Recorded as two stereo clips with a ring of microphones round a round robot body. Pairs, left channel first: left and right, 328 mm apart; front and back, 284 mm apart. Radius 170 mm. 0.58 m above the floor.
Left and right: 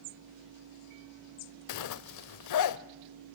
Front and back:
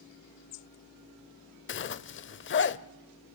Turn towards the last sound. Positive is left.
turn(degrees=50)